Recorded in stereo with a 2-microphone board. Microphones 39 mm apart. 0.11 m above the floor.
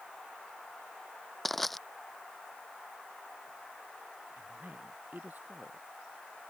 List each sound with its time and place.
1.4 s crushing: 5° left (ahead or behind)
4.4 s a woman speaking: 50° right (ahead or behind)